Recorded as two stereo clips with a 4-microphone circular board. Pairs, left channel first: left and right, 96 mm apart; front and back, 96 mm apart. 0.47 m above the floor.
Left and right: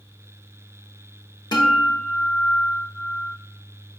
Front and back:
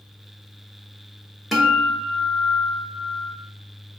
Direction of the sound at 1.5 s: 90° left.